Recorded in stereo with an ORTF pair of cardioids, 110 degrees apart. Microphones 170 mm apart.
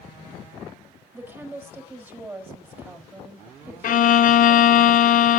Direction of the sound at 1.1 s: 10° right.